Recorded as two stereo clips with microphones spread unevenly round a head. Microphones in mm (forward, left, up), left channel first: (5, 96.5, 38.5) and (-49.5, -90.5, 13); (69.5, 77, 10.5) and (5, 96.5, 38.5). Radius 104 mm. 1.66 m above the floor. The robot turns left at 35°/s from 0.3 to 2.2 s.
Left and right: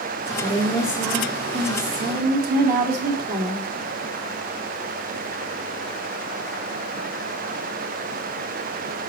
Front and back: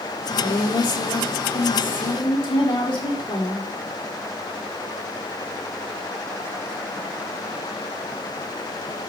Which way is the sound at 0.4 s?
Straight ahead.